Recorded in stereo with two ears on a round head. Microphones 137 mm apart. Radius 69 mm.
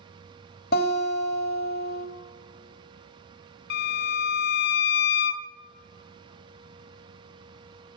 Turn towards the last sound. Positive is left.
turn(degrees=70)  # may be behind; listen again after turning